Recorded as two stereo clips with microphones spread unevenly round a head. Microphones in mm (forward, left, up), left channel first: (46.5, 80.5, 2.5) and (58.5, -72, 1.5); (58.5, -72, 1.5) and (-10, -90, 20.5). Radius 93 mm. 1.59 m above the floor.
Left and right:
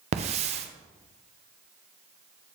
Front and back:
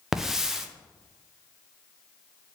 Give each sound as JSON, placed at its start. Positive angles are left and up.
{"t": 0.1, "sound": "a hiss", "azimuth_deg": -105, "distance_m": 0.6}